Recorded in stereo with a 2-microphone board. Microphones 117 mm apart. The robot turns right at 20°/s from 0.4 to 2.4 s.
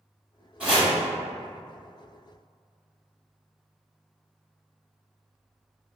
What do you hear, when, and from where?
0.6 s chopping: 10° right (ahead or behind), 1.4 m; by 0.9 s 5° right (ahead or behind), 1.4 m